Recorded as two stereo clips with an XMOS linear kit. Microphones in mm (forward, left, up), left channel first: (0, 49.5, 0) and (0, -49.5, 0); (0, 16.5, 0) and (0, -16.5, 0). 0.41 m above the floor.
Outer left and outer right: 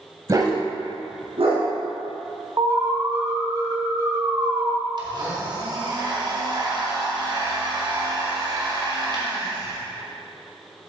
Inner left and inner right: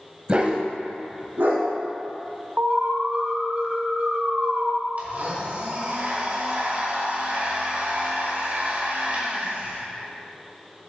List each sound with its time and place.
0.3 s a dog barking: 35° right (ahead or behind), 1.0 m; by 1.6 s 80° right, 2.5 m
2.6 s an alarm: 40° right (ahead or behind), 1.3 m
5.0 s a blender: 50° right (ahead or behind), 1.8 m